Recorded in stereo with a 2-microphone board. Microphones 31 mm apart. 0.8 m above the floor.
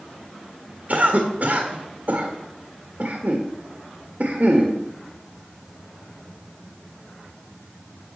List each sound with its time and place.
0.9 s a cough: 50° right (ahead or behind), 1.7 m